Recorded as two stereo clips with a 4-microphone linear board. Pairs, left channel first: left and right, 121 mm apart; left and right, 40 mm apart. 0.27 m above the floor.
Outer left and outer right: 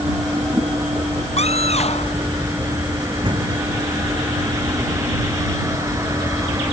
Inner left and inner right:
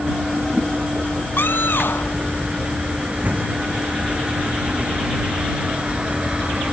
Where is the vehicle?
25° right (ahead or behind).